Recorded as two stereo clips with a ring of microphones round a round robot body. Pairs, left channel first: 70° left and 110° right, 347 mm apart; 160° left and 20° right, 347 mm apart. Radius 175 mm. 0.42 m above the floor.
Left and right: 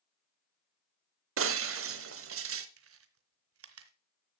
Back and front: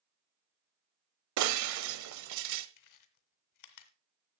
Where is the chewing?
165° right, 1.3 m.